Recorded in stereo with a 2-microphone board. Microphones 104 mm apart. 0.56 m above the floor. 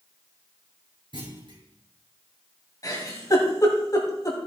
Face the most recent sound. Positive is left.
turn(degrees=30)  # may be behind; listen again after turning